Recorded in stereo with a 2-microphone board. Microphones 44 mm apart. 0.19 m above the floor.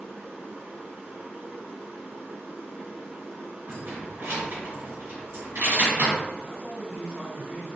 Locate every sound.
0.0 s running water: 60° right (ahead or behind), 1.4 m
3.7 s keys jangling: 60° right (ahead or behind), 1.9 m
6.4 s a man speaking: 30° right (ahead or behind), 1.2 m